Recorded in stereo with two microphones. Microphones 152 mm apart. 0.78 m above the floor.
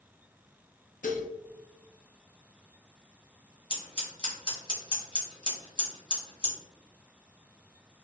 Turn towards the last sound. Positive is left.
turn(degrees=35)  # may be behind; listen again after turning